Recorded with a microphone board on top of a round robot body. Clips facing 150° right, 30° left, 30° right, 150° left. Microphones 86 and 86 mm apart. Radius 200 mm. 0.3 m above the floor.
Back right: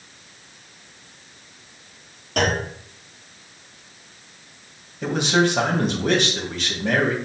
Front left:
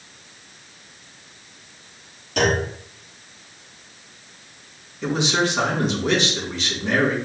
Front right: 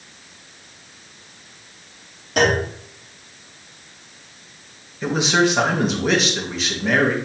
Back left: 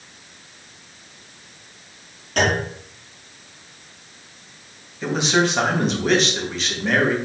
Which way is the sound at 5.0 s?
115° right.